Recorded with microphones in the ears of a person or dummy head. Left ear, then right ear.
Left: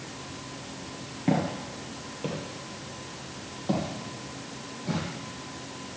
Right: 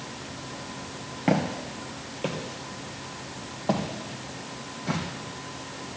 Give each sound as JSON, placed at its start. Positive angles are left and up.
{"t": 1.3, "sound": "footsteps", "side_deg": -25, "distance_m": 1.6}